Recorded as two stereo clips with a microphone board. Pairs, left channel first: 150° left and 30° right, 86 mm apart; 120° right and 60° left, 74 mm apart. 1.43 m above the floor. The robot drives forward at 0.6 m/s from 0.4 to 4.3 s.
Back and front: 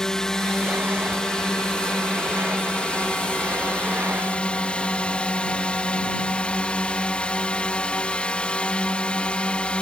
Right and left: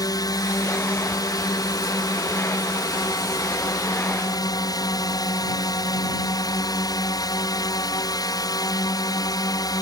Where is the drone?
130° right; by 9.8 s 135° right.